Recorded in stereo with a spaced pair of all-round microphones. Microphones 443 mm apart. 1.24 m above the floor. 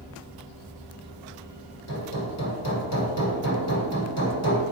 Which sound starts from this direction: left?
Hammering, at 1.9 s.